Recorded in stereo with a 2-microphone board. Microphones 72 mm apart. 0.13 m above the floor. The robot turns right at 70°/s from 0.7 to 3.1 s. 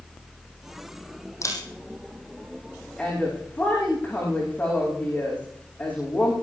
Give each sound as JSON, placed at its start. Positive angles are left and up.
{"t": 1.4, "sound": "a camera shutter", "side_deg": 40, "distance_m": 5.0}
{"t": 3.0, "sound": "a woman speaking", "side_deg": 15, "distance_m": 9.0}